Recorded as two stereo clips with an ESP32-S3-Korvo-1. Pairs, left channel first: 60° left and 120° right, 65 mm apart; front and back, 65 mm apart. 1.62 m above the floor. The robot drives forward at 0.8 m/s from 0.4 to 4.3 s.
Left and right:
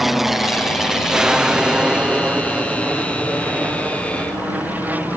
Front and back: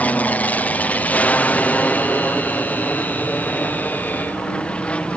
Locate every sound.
0.0 s an aircraft: 35° right; by 5.2 s 65° right